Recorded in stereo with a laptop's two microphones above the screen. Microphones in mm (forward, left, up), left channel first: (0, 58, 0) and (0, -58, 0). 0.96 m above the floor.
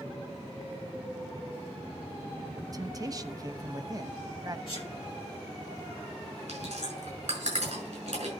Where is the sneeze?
50° left (ahead or behind), 0.8 m.